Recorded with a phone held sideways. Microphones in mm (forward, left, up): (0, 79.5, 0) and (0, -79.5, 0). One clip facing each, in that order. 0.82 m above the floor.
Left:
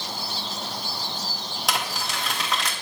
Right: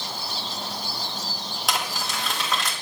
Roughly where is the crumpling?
Centre.